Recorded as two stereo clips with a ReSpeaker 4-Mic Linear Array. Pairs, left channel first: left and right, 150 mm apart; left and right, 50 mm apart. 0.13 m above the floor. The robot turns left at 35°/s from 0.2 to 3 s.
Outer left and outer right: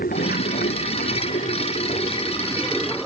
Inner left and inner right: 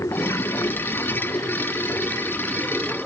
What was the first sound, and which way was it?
Running water, 100° left.